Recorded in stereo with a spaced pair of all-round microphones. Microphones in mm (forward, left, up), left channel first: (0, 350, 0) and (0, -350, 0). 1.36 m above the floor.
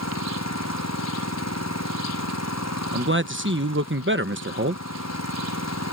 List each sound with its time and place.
0.0 s an engine running: 20° left (ahead or behind)
2.9 s a man speaking: 15° right (ahead or behind)